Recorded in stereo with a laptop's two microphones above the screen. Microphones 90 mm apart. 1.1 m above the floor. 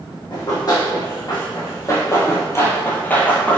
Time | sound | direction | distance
0.3 | running footsteps | 40° left (ahead or behind) | 2.0 m